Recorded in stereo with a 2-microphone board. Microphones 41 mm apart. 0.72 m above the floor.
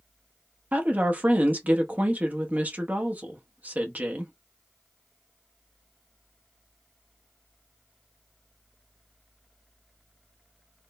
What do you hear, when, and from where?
0.7 s a woman speaking: 40° right (ahead or behind), 0.8 m